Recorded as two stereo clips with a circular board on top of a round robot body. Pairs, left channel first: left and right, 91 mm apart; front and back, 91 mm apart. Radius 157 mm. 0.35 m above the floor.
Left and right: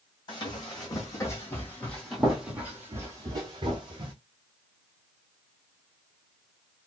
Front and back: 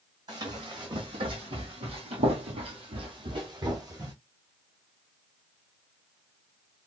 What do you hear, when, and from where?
0.3 s running footsteps: 135° left, 1.7 m; by 4.1 s 125° right, 1.4 m